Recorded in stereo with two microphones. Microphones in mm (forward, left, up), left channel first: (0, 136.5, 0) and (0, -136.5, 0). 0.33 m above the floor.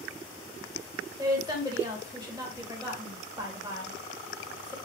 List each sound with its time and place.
1.2 s a woman speaking: 15° right (ahead or behind), 1.5 m